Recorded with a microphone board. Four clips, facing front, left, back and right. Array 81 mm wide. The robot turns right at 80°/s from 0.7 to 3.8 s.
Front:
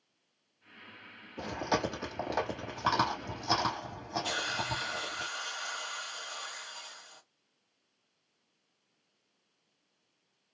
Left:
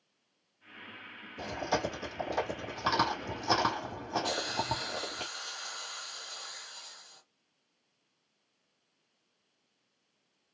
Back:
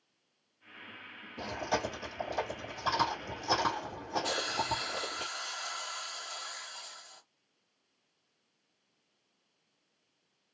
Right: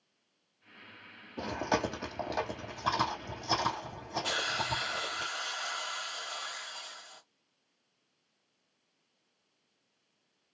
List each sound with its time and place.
1.4 s chewing: 95° right, 2 m; by 5.2 s 95° left, 2 m
4.2 s a hiss: 75° right, 1.3 m